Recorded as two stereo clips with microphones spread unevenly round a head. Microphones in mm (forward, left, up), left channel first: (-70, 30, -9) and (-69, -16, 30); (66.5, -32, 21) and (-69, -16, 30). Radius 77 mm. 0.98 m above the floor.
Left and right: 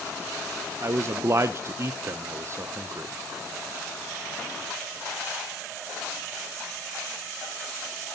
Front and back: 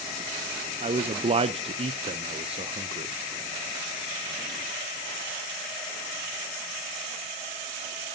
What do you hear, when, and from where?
0.8 s a man speaking: 140° right, 0.6 m